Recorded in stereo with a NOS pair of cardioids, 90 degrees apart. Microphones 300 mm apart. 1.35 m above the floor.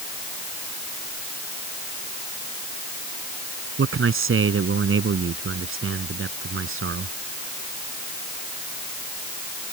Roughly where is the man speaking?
Ahead right.